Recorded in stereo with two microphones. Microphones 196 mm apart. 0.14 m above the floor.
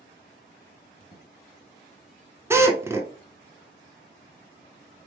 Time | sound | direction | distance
1.0 | a squeak | 45° left (ahead or behind) | 1.7 m
2.5 | a drill | 15° right (ahead or behind) | 0.7 m